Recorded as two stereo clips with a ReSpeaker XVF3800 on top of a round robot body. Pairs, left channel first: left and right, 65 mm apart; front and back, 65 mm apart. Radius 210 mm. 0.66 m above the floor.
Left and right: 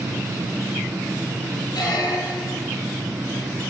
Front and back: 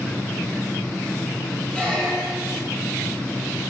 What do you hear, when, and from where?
1.7 s a squeak: 75° left, 3.5 m